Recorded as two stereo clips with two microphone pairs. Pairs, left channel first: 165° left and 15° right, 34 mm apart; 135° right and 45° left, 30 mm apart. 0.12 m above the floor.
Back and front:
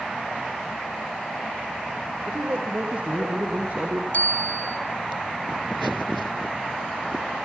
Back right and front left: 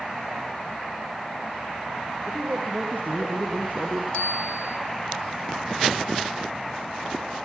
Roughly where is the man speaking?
Ahead.